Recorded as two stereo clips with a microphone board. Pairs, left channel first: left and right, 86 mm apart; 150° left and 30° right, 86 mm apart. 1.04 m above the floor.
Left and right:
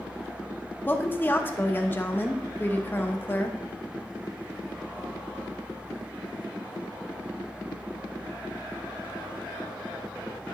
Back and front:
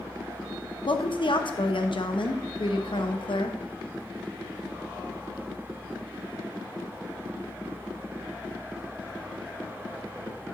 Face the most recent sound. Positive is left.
turn(degrees=155)